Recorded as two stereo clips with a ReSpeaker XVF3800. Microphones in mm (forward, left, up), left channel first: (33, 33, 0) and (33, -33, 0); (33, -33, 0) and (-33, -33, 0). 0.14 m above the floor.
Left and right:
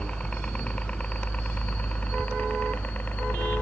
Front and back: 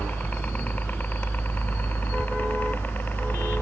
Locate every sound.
0.0 s a helicopter: 30° left; by 3.6 s 40° left